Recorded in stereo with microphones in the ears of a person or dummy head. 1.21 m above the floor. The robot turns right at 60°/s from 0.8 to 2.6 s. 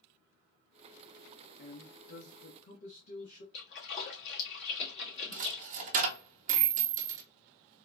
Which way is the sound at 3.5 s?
65° left (ahead or behind).